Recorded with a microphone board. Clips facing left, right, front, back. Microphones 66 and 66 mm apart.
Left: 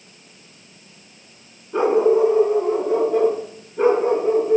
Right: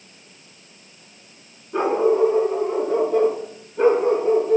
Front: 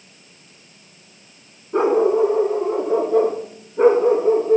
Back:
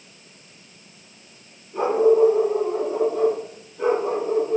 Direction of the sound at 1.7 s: 5° left.